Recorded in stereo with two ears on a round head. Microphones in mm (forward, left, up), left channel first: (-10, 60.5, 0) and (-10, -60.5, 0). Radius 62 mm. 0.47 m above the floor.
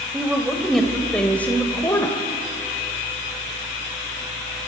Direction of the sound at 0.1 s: 5° right (ahead or behind).